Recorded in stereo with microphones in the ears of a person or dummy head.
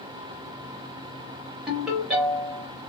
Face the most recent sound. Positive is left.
turn(degrees=0)  # may be behind; listen again after turning